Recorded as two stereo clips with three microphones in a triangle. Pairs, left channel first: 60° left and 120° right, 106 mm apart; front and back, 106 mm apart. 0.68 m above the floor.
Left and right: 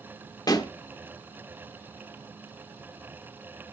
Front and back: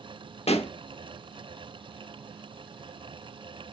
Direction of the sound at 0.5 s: 5° left.